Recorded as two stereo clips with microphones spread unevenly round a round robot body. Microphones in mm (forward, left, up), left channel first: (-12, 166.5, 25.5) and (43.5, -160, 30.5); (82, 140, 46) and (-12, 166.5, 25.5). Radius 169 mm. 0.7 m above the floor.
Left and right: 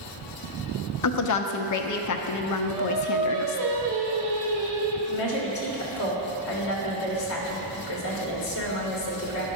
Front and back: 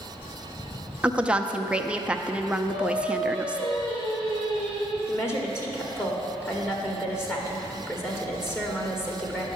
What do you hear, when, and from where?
1.0 s a woman speaking: 95° left, 0.7 m
2.6 s singing: 45° right, 2 m
5.1 s a woman speaking: 55° left, 2 m